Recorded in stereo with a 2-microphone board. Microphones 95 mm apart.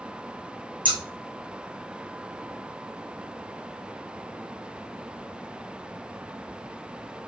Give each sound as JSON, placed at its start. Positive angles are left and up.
{"t": 0.8, "sound": "scissors", "side_deg": -55, "distance_m": 1.1}